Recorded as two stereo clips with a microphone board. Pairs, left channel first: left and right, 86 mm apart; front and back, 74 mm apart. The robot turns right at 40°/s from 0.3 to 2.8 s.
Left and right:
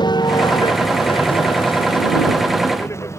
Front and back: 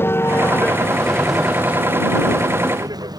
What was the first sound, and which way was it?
A vehicle, 60° left.